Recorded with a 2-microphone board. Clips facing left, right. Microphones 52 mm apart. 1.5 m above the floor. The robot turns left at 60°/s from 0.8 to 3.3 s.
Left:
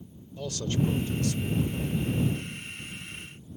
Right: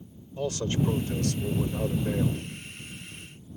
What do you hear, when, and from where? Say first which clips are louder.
0.4 s a man speaking: right 2 dB; 30° right; by 2.4 s 125° right